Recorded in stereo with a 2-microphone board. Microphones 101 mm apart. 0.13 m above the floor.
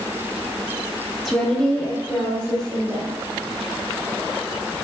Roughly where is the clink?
No clink in this recording.